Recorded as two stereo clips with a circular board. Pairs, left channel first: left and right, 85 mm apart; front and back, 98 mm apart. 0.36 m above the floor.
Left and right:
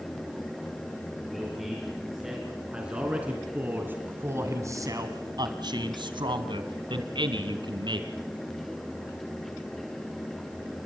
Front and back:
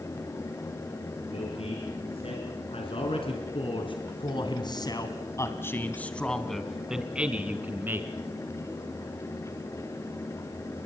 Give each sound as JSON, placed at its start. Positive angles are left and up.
{"t": 1.3, "sound": "a man speaking", "azimuth_deg": 0, "distance_m": 5.0}